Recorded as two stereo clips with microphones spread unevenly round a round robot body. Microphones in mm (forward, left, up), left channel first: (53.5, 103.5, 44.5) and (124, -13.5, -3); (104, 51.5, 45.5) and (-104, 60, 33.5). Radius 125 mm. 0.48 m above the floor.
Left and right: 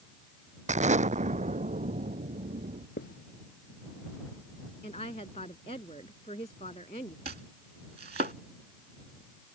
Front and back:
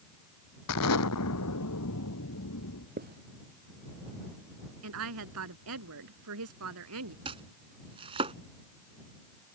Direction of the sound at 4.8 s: 170° right.